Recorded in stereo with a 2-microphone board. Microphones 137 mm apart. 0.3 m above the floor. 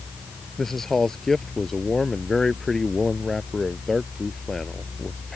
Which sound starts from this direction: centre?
A man speaking, at 0.6 s.